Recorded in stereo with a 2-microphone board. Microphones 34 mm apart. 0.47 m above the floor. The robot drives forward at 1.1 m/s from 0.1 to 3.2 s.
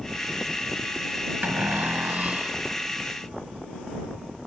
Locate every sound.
1.4 s a cupboard door: 85° right; by 2.6 s 35° right (ahead or behind)